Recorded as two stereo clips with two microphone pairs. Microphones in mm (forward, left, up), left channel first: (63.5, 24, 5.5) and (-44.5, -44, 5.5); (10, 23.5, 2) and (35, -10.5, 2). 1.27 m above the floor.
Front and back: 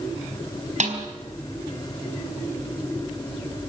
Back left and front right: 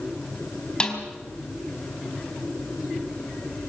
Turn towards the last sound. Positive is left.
turn(degrees=-165)